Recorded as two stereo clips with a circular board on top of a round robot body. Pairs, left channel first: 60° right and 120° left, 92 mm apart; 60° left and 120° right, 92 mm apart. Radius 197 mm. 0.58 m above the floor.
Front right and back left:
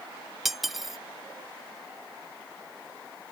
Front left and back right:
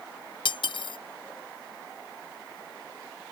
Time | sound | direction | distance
0.5 | cutlery clinking | 30° left | ?